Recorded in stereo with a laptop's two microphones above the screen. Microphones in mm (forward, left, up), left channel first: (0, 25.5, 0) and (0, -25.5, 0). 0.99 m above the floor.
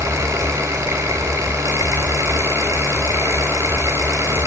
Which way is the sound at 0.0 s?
80° right.